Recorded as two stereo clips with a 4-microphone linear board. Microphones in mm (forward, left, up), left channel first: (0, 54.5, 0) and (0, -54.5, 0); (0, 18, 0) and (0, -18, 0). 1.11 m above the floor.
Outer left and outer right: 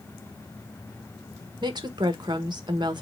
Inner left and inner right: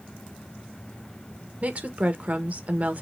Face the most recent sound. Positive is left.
turn(degrees=-40)  # may be behind; listen again after turning